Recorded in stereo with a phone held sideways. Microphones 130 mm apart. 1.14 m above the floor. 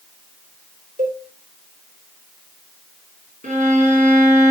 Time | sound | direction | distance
1.0 | a cowbell | 75° right (ahead or behind) | 2.5 m
3.4 | a violin | 80° right | 4.5 m